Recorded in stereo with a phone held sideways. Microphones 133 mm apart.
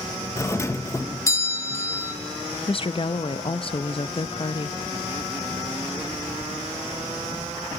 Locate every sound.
0.4 s a doorbell: 20° left (ahead or behind), 0.7 m
2.7 s a woman speaking: 45° left (ahead or behind), 0.6 m